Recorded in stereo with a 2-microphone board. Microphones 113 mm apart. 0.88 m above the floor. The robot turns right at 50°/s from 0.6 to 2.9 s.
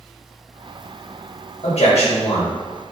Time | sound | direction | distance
1.6 | a man speaking | 70° left | 1.1 m